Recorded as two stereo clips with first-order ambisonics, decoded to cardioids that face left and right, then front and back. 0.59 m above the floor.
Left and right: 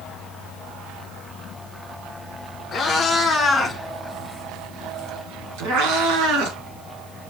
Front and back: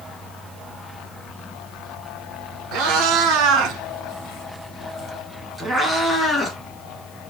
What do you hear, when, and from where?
2.7 s a cat meowing: 165° left, 1.3 m; by 6.6 s 85° right, 1.2 m